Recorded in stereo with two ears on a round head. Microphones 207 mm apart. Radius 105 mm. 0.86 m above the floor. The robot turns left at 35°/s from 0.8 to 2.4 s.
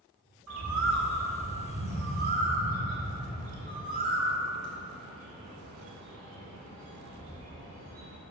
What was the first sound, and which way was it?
A bird, 80° right.